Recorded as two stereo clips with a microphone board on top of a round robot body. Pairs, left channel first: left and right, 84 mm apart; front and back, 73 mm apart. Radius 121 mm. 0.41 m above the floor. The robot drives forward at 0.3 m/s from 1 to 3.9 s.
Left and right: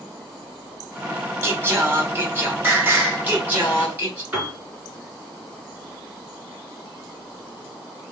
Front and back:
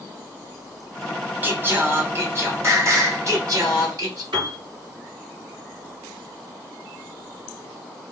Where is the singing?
130° right, 1.3 m; by 4.2 s 155° right, 1.7 m.